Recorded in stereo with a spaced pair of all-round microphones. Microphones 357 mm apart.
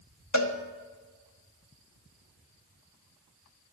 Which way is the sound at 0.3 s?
50° left (ahead or behind).